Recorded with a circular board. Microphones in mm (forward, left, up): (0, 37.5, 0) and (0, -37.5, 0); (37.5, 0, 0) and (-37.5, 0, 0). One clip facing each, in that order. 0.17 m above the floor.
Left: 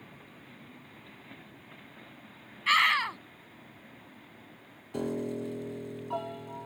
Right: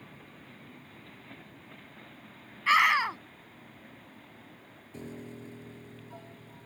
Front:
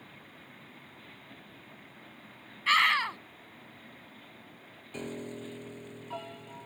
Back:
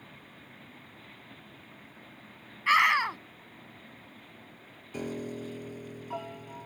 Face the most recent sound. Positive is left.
turn(degrees=100)